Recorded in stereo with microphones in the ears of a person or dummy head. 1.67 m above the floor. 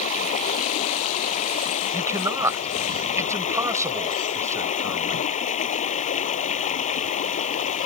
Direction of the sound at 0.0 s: 40° left (ahead or behind).